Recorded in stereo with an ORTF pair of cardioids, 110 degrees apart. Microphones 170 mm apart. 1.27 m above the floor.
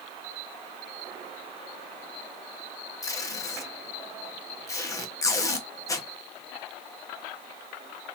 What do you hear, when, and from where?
3.0 s tape being pulled: 20° left, 1.1 m